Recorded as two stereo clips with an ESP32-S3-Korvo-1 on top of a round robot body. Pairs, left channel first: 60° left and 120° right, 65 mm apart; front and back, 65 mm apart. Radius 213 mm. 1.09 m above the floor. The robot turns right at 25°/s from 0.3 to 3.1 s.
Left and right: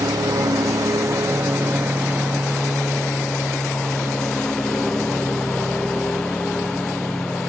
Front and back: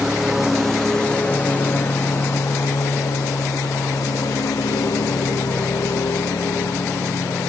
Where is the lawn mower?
95° right; by 7.5 s 20° right.